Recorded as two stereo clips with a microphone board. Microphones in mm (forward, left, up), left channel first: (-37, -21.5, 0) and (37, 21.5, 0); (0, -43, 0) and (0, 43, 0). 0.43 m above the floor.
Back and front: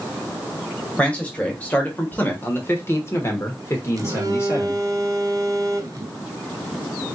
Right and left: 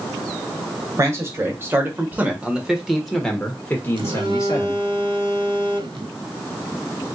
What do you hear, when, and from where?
1.0 s a man speaking: 140° left, 1.7 m; by 4.8 s 105° right, 1.2 m
4.0 s a phone buzzing: 75° left, 0.8 m